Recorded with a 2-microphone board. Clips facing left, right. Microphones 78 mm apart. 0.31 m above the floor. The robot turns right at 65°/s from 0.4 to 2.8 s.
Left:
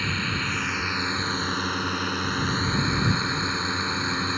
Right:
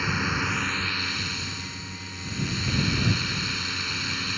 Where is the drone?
15° right; by 4.4 s 140° left.